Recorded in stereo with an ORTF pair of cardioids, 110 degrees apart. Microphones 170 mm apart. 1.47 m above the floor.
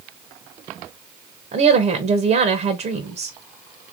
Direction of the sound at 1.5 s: 45° right.